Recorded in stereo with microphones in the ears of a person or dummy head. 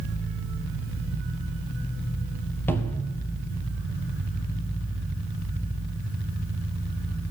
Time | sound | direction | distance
2.7 | a cupboard door | 10° left (ahead or behind) | 1.5 m